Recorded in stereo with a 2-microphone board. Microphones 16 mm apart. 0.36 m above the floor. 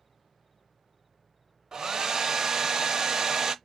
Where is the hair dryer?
35° right (ahead or behind), 0.6 m.